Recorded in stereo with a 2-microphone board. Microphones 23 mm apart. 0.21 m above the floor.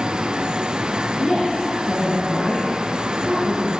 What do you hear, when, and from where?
1.2 s a woman speaking: 45° left (ahead or behind), 3.5 m